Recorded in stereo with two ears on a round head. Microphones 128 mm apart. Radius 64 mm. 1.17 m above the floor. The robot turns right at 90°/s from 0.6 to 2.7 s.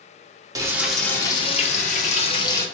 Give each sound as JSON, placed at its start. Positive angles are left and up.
{"t": 0.6, "sound": "frying", "azimuth_deg": -30, "distance_m": 0.9}